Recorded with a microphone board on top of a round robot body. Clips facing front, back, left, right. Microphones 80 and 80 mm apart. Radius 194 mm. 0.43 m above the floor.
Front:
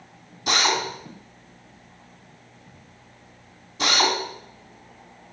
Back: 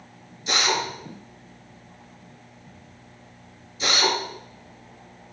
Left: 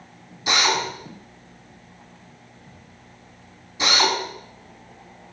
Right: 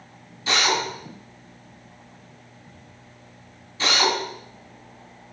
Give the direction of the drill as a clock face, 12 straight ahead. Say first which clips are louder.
Front 2 dB, left 1 dB; 11 o'clock.